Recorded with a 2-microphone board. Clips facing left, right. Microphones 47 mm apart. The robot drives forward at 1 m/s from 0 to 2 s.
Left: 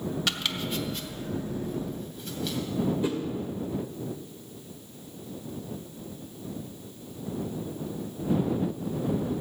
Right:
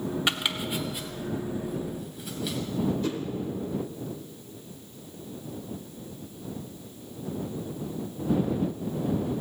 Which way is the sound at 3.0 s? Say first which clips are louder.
Left 1 dB; 15° left (ahead or behind).